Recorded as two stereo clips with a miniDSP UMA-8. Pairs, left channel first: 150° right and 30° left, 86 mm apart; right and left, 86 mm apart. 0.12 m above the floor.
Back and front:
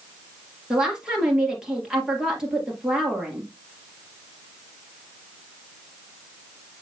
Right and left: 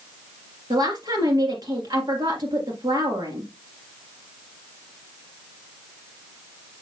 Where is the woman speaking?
110° left, 2.5 m.